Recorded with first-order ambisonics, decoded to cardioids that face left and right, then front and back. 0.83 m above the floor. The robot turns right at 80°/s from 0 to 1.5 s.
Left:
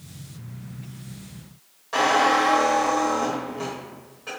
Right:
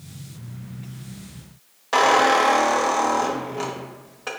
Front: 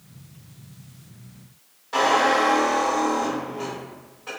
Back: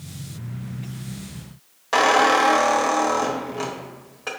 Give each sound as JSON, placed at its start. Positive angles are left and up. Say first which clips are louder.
{"t": 1.9, "sound": "a squeak", "louder": "right 3 dB, back 3 dB", "azimuth_deg": -145, "distance_m": 0.9}